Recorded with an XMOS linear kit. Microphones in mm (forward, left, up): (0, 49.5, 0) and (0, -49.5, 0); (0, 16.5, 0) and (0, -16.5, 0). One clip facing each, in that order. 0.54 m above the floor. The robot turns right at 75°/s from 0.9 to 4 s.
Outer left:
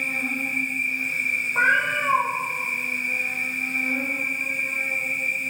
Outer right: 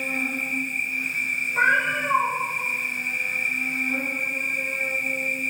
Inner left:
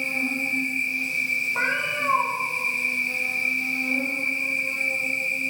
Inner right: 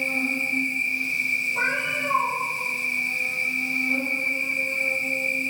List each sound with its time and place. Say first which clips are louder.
0.0 s an insect: even, inner right 1 dB; 40° right, 1.1 m; by 5.5 s 170° right, 1.1 m
1.6 s a cat meowing: even, even; 50° left, 0.9 m; by 2.3 s 105° left, 0.9 m